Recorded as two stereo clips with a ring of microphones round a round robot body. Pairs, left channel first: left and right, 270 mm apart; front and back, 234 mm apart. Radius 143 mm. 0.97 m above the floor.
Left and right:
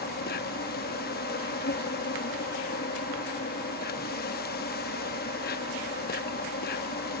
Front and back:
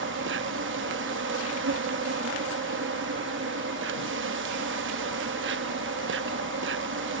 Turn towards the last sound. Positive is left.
turn(degrees=145)